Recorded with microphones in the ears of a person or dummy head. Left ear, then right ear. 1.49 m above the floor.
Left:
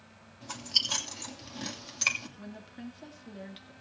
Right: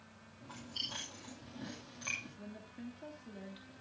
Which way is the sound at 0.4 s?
75° left (ahead or behind).